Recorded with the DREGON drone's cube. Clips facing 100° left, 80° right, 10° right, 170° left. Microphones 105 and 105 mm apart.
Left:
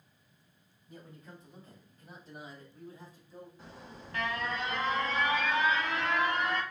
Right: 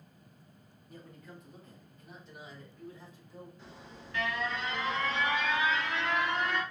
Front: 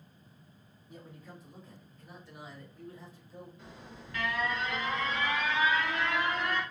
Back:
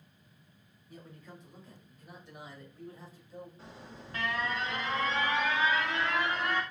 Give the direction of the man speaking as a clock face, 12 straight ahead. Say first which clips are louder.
Even, front 1 dB; 10 o'clock.